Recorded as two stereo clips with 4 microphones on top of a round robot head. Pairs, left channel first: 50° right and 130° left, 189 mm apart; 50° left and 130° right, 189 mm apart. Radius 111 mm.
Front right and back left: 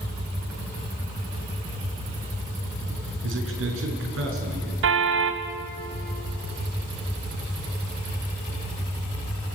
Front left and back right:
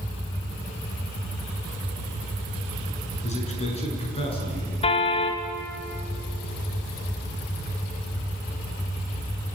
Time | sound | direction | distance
3.2 | a man speaking | 110° left | 6 m
4.8 | a car horn | 115° left | 2 m